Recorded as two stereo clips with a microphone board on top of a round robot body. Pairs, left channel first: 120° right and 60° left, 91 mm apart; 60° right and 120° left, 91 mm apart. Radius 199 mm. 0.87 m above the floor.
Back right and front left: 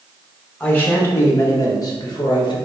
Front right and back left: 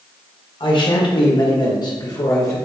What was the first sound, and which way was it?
A man speaking, 50° right.